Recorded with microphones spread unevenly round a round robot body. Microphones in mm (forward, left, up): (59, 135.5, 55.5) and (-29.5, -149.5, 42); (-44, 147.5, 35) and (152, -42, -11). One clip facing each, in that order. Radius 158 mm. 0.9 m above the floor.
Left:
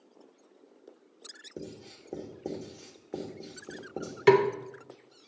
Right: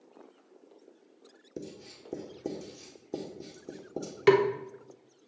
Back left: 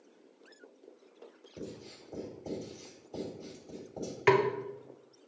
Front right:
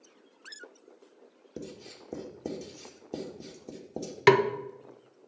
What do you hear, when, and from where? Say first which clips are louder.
1.6 s writing: even, front right 2 dB; 35° right, 1.4 m
4.3 s a snare drum: left 1 dB, front right 4 dB; 15° right, 0.6 m